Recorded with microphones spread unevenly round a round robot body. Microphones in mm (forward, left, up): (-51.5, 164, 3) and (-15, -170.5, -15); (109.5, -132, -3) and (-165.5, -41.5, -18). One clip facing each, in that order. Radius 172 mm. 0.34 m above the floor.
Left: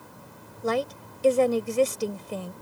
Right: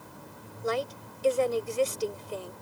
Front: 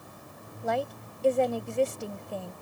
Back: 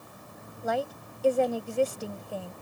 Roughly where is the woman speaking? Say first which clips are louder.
Left 4 dB, even; left.